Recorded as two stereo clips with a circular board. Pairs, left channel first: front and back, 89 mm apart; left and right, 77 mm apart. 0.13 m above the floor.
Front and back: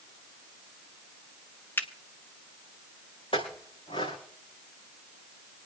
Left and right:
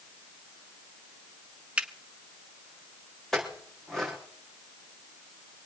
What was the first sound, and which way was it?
A finger snap, 35° right.